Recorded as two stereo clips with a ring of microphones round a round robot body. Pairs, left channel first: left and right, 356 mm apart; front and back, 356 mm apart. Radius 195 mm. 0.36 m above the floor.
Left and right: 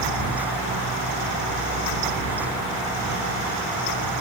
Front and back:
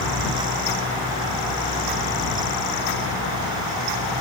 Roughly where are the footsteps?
I don't hear footsteps.